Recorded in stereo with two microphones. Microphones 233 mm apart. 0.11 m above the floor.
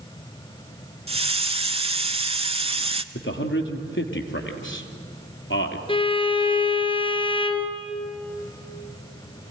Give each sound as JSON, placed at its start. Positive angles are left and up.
{"t": 1.1, "sound": "a hiss", "side_deg": -25, "distance_m": 0.7}
{"t": 3.1, "sound": "a man speaking", "side_deg": 55, "distance_m": 1.9}
{"t": 5.9, "sound": "a violin", "side_deg": 20, "distance_m": 1.6}